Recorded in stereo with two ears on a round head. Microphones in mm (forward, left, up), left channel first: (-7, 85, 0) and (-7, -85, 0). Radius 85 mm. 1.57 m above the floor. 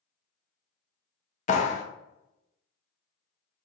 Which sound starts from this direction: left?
A clap, at 1.5 s.